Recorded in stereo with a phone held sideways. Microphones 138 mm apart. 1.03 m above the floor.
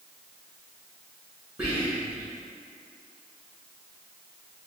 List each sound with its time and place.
1.6 s whispering: 10° right (ahead or behind), 1.7 m